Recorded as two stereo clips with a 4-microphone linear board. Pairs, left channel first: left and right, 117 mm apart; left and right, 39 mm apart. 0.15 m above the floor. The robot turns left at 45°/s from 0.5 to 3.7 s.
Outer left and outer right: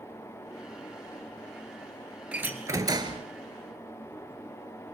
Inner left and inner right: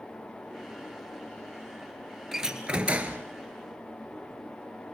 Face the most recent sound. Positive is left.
turn(degrees=-75)